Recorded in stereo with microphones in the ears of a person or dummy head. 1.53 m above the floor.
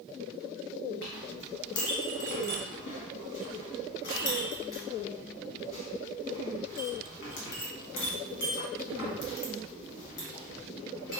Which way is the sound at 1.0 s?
55° left (ahead or behind).